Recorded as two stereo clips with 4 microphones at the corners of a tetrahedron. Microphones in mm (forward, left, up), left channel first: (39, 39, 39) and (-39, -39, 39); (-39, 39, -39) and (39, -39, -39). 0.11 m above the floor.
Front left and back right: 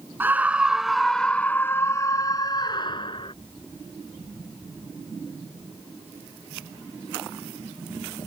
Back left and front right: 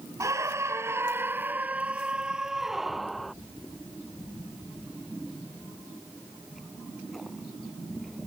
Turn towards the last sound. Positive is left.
turn(degrees=45)